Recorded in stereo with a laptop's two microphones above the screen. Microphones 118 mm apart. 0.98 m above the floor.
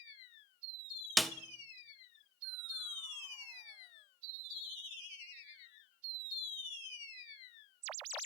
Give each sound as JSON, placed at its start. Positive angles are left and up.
{"t": 1.2, "sound": "a snare drum", "side_deg": 0, "distance_m": 0.5}